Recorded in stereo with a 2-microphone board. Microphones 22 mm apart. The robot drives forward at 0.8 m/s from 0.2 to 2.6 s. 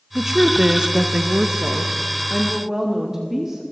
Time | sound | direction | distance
0.1 | a woman speaking | 25° right (ahead or behind) | 1.0 m